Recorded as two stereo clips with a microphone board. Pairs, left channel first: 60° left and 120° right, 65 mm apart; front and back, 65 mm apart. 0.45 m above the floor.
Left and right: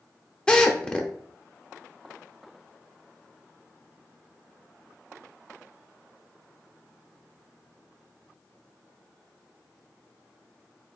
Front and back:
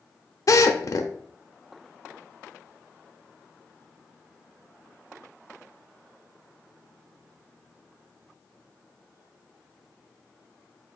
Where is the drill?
15° right, 0.6 m.